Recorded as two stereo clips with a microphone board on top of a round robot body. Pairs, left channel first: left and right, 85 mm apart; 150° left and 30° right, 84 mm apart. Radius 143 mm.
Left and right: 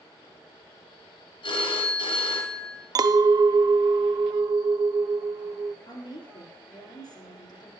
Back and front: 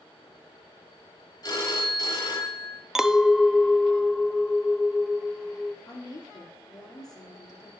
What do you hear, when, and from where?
1.4 s a phone ringing: 105° left, 2.5 m
3.0 s a clink: 115° right, 0.5 m
5.8 s a woman speaking: 110° left, 2 m